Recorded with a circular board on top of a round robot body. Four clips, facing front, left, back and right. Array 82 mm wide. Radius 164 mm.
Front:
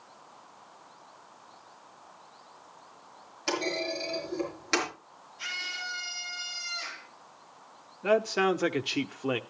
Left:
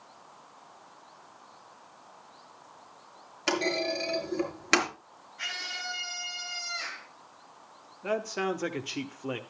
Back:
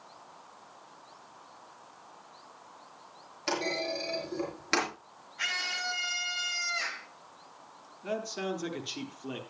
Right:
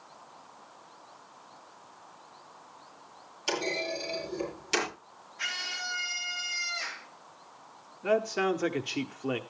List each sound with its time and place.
3.5 s a clunk: 95° left, 6 m
5.4 s a scream: 155° left, 8.5 m
8.0 s a man speaking: 10° right, 1.3 m